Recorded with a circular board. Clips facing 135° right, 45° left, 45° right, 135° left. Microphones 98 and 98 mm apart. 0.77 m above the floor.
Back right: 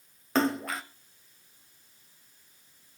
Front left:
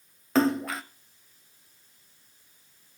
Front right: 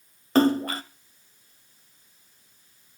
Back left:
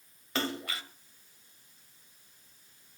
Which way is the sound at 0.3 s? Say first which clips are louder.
Front left 3 dB, front right 14 dB; 45° right.